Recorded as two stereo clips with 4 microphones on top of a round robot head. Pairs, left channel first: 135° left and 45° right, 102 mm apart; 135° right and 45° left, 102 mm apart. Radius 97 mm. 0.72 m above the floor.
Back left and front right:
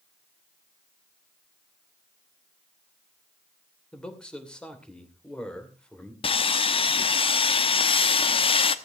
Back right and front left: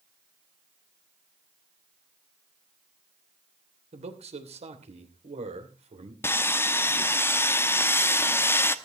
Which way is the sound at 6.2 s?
160° left.